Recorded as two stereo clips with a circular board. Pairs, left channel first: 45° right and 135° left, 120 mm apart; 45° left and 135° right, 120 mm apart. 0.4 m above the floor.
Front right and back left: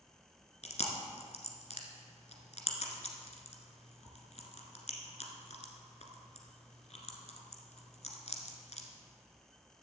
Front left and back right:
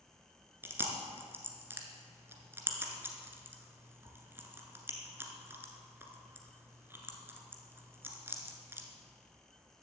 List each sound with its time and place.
0.6 s chewing: 65° right, 1.7 m